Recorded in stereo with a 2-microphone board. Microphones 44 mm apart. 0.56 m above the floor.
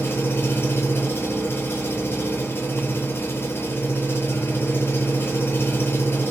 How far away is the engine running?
About 8.5 m.